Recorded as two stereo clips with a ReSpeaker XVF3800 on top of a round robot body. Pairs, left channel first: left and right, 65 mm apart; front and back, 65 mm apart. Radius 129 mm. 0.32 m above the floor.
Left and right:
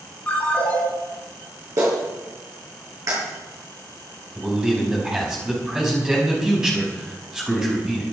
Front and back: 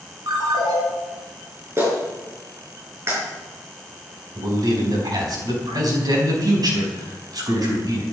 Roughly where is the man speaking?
Behind.